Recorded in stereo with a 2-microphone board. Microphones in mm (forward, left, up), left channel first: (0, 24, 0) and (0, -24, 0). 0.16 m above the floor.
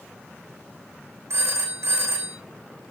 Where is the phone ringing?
80° right, 5.5 m.